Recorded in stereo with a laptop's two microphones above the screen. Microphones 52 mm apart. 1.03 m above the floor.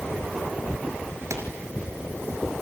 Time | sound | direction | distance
1.3 | a pop | 70° right (ahead or behind) | 4.5 m